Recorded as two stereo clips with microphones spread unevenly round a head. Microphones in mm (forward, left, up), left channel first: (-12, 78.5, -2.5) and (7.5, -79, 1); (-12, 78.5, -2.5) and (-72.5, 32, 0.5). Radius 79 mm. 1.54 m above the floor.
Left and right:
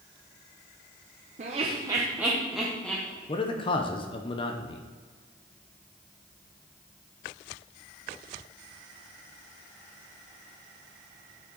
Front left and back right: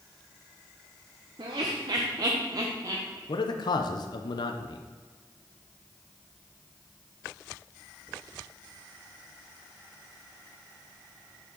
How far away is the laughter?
About 0.7 m.